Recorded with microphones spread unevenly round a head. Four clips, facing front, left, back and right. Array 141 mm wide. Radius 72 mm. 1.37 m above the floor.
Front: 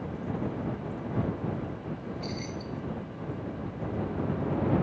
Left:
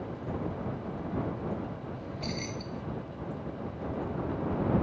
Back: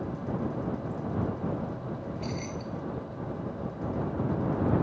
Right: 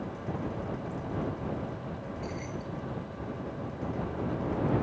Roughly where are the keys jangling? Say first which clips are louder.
Even, back 1 dB; behind left.